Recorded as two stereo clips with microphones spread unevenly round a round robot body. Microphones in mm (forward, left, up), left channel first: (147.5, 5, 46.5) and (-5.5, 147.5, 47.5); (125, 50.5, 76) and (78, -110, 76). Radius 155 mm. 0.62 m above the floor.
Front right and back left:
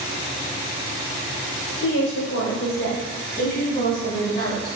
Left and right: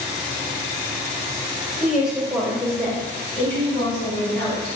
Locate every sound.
1.8 s a woman speaking: 25° right, 3 m; by 4.8 s 5° left, 6 m